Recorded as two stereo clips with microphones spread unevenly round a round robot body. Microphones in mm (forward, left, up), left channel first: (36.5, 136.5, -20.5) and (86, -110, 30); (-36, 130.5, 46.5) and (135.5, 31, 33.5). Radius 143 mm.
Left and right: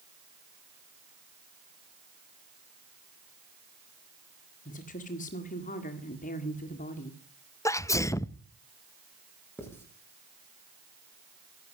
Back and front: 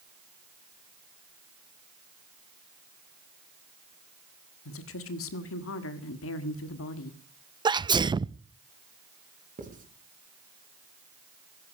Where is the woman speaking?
165° left, 1.6 m.